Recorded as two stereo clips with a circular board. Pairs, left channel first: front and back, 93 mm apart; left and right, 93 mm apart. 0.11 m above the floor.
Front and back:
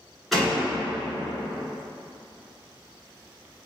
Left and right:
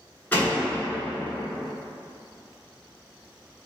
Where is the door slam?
90° left, 1.2 m.